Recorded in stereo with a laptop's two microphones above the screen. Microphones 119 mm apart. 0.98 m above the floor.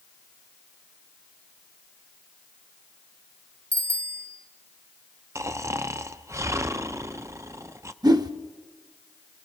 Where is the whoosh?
35° right (ahead or behind), 0.7 m.